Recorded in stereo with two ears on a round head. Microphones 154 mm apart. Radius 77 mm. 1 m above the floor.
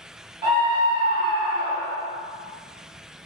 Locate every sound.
0.4 s a scream: 30° right (ahead or behind), 0.8 m; by 2.1 s centre (ahead or behind), 1.3 m